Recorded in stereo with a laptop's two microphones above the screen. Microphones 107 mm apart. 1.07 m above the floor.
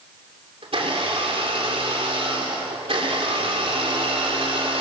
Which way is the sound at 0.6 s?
65° right (ahead or behind).